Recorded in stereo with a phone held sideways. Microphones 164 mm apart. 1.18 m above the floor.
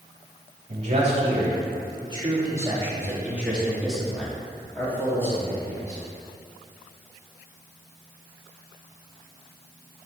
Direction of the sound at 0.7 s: 45° right (ahead or behind).